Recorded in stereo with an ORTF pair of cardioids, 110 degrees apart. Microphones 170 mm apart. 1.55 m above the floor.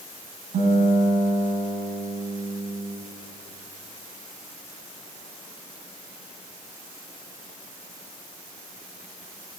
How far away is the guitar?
About 8.5 m.